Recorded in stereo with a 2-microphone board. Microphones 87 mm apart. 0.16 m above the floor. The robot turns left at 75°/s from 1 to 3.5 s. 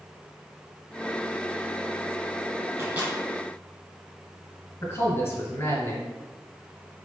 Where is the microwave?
30° right (ahead or behind), 1.8 m; by 3.1 s 15° right (ahead or behind), 1.8 m.